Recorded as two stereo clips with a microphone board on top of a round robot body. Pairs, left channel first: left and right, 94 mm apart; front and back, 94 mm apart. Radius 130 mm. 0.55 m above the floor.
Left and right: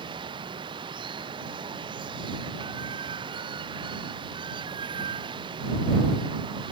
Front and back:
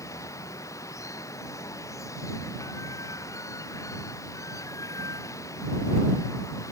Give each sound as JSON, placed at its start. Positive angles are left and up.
{"t": 0.0, "sound": "running water", "azimuth_deg": -60}